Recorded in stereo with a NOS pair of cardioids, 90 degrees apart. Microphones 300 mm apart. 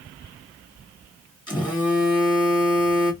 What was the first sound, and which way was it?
A phone buzzing, 15° left.